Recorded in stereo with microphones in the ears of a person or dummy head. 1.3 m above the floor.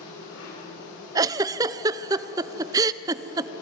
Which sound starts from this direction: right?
A giggle, at 1.1 s.